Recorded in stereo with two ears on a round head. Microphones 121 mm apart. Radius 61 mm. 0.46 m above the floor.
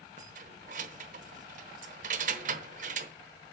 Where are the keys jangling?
60° right (ahead or behind), 1.0 m.